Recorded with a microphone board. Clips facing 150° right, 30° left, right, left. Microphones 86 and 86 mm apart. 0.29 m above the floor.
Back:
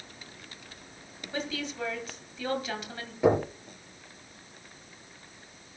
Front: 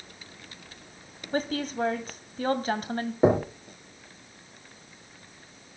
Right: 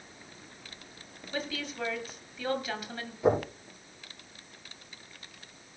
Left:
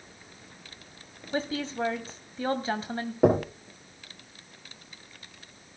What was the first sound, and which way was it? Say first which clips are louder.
A woman speaking: front 6 dB, left 6 dB; 50° left.